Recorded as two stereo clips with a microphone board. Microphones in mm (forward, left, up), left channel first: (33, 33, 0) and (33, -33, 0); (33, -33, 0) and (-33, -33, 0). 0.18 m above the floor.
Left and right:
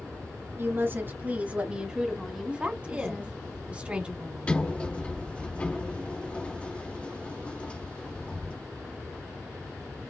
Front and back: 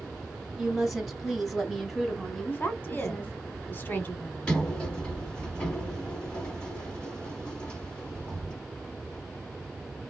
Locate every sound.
0.6 s a woman speaking: 95° right, 2 m; by 3.4 s 65° left, 1.8 m
2.5 s a woman speaking: 30° right, 1.5 m
4.5 s a sliding door: 55° left, 1.5 m